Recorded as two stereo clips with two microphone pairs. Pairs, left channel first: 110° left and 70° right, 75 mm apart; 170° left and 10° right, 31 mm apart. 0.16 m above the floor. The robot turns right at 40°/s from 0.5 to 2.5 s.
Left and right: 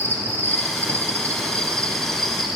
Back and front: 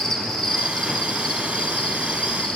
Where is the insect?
120° left, 1.1 m; by 2.6 s 160° right, 1.1 m.